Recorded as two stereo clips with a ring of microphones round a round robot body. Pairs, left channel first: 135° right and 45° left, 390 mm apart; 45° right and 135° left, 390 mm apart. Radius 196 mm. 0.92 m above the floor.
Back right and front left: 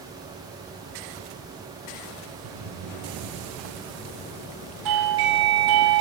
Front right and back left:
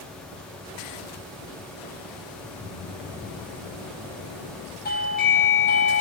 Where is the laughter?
30° left, 8 m.